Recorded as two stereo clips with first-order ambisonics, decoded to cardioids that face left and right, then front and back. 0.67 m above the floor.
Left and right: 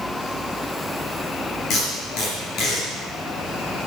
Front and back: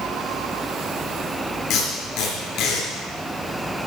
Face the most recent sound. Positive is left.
turn(degrees=45)